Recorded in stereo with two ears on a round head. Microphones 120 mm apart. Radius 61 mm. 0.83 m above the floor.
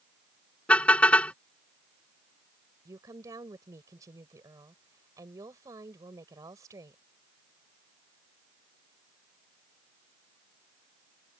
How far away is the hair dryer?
No hair dryer in this recording.